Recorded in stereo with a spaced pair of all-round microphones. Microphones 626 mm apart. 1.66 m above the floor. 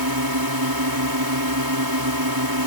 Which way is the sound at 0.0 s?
35° right (ahead or behind).